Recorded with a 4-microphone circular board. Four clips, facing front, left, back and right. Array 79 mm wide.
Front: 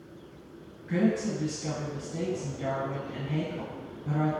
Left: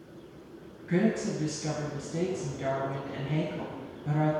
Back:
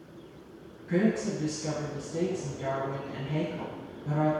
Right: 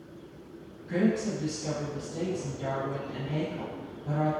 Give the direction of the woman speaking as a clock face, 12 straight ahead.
9 o'clock.